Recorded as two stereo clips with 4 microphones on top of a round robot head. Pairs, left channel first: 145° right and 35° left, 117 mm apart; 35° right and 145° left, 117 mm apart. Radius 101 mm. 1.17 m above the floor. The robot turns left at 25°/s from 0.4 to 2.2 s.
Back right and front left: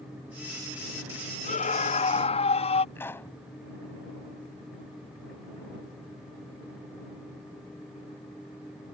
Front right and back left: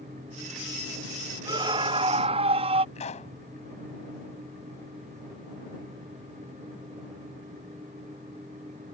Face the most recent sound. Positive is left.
turn(degrees=-70)